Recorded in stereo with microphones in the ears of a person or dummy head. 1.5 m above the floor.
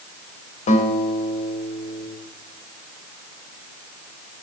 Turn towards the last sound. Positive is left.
turn(degrees=35)  # may be behind; listen again after turning